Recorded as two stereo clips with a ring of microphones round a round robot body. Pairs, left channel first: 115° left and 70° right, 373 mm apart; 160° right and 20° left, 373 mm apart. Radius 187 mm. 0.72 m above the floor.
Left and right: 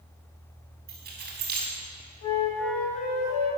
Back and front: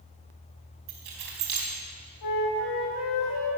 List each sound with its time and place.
0.9 s keys jangling: 5° right, 5 m
2.2 s a flute: 160° left, 5 m